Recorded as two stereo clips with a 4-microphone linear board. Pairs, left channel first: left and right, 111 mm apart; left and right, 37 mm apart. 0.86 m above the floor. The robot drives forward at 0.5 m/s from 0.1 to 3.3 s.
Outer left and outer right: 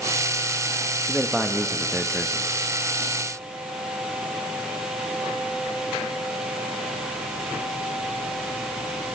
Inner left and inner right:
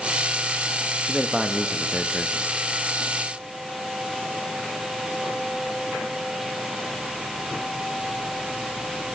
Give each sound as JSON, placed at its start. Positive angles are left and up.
{"t": 1.1, "sound": "a man speaking", "side_deg": 0, "distance_m": 1.0}